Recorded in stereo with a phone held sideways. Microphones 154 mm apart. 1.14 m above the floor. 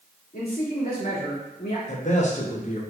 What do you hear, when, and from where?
0.3 s a man speaking: 80° left, 1.9 m
1.9 s a man speaking: 50° left (ahead or behind), 1.0 m